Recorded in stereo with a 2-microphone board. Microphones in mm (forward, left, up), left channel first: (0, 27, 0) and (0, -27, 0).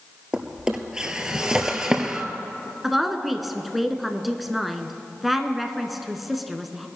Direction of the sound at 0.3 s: 10° right (ahead or behind).